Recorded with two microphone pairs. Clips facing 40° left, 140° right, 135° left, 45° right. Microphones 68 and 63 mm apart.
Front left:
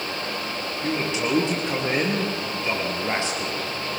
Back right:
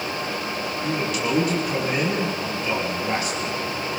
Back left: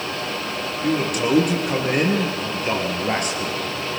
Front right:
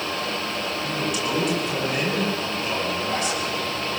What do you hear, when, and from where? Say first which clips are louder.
0.8 s a man speaking: even, back left 8 dB; 100° left, 5.5 m